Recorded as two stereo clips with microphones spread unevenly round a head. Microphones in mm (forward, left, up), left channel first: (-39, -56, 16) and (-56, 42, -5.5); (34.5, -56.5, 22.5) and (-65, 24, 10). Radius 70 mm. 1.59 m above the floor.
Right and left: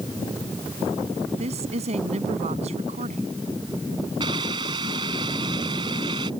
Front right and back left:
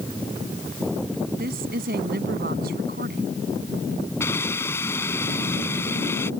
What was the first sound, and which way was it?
A woman speaking, 115° left.